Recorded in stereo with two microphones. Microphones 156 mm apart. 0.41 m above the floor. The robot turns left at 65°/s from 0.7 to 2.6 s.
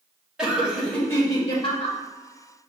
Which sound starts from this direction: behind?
Laughter, at 0.4 s.